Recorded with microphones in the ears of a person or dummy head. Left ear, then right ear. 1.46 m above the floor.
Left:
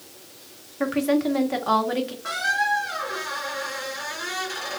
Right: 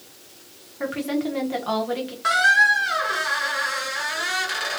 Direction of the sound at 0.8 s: 10° left (ahead or behind).